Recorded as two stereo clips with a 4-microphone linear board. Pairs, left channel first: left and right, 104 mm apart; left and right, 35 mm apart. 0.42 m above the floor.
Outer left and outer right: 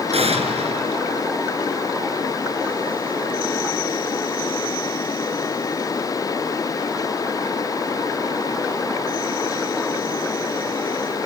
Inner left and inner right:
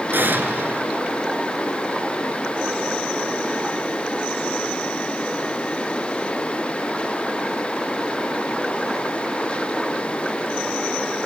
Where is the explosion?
75° right (ahead or behind), 3 m.